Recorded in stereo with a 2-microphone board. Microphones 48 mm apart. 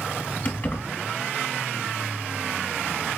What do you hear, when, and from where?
0.5 s keys jangling: 40° left (ahead or behind), 1.4 m